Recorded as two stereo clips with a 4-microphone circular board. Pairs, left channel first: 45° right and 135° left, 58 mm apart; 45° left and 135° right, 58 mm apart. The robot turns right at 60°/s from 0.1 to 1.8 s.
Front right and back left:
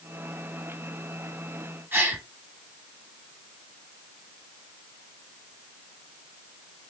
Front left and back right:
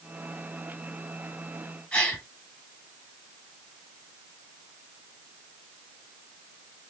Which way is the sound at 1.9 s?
105° left.